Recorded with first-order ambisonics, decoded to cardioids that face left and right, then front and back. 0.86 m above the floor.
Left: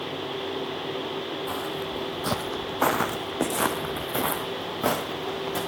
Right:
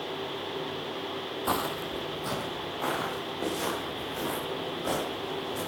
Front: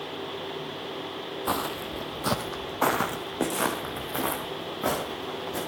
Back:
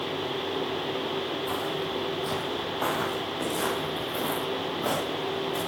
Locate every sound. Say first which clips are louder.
1.5 s footsteps: even, even; 40° right, 1.0 m; by 5.6 s 75° left, 5 m